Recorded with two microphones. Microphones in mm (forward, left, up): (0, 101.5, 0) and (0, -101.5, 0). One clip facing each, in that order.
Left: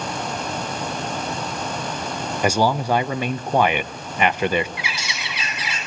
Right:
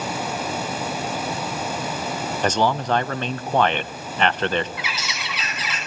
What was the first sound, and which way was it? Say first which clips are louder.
A man speaking: left 2 dB; 10° left (ahead or behind).